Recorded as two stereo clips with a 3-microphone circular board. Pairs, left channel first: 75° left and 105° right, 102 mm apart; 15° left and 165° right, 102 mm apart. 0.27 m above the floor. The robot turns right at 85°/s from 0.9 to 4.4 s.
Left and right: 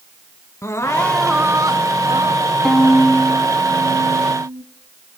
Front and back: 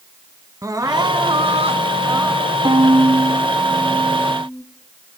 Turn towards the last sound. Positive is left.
turn(degrees=-55)